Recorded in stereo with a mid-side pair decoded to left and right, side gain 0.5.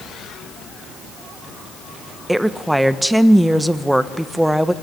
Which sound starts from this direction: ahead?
A woman speaking, at 2.3 s.